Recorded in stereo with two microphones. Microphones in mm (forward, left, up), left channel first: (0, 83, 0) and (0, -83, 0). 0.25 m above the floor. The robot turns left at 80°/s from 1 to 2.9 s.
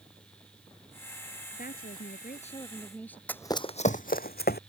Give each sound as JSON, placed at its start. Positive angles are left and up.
{"t": 1.5, "sound": "a woman speaking", "azimuth_deg": 120}
{"t": 3.3, "sound": "running footsteps", "side_deg": 10}